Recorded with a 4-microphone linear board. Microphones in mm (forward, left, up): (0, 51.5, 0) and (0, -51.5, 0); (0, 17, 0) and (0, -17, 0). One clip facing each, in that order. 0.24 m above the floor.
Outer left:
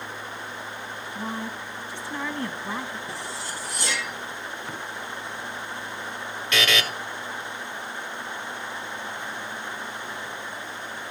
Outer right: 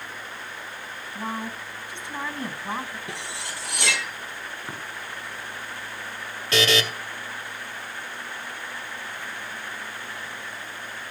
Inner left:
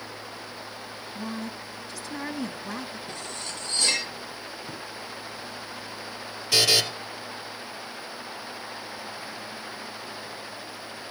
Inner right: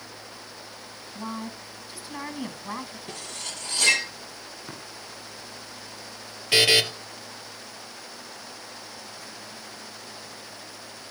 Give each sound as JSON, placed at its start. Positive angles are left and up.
{"t": 1.1, "sound": "a woman speaking", "side_deg": -20, "distance_m": 1.8}
{"t": 3.1, "sound": "cutlery clinking", "side_deg": -75, "distance_m": 4.0}
{"t": 4.7, "sound": "tapping", "side_deg": -25, "distance_m": 8.0}
{"t": 6.5, "sound": "a buzzer", "side_deg": -35, "distance_m": 2.0}